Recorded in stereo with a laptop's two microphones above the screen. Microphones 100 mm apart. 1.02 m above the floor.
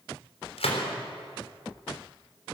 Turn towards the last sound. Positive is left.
turn(degrees=80)